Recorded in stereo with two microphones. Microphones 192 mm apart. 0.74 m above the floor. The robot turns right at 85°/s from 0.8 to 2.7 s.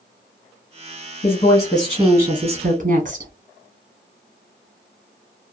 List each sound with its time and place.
1.2 s a woman speaking: 125° left, 1.0 m; by 3.3 s 110° right, 1.0 m